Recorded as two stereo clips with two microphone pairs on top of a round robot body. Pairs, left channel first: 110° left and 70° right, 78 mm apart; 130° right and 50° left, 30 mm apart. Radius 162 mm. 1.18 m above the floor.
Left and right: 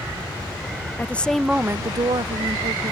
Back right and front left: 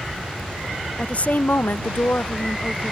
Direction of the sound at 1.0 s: 175° left.